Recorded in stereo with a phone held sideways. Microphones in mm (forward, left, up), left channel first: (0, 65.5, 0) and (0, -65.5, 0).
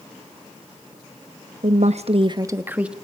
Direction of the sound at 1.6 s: 60° right (ahead or behind).